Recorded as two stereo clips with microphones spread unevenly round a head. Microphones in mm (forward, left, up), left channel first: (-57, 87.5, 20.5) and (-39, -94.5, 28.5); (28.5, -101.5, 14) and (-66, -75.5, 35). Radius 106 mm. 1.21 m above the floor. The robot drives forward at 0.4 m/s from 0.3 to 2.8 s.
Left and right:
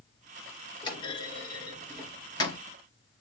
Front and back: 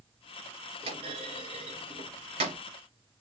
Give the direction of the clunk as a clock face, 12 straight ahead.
7 o'clock.